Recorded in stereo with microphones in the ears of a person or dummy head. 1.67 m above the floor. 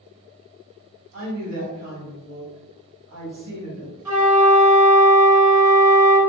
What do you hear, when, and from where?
1.1 s a woman speaking: 70° right (ahead or behind), 1.3 m
4.0 s a flute: 15° right (ahead or behind), 0.8 m